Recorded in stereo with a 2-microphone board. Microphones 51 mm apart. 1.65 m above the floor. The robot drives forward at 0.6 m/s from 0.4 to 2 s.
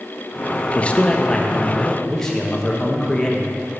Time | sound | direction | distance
0.8 | a man speaking | 25° left (ahead or behind) | 0.6 m